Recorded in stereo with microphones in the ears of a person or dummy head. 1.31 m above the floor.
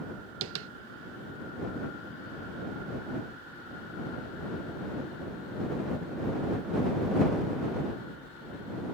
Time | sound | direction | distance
0.4 | tapping | 75° right (ahead or behind) | ?